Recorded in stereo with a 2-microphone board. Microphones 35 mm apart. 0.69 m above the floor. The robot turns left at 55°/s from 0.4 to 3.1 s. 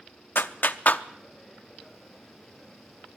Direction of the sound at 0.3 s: 60° left (ahead or behind).